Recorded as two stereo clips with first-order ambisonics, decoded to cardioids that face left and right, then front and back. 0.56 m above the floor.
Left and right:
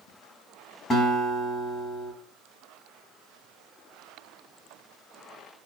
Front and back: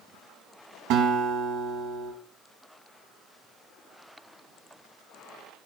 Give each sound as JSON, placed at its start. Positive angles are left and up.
{"t": 0.9, "sound": "a guitar", "azimuth_deg": 160, "distance_m": 2.0}